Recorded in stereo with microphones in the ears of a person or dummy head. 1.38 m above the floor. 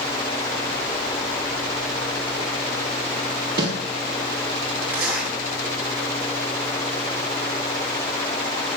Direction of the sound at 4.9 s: 5° right (ahead or behind).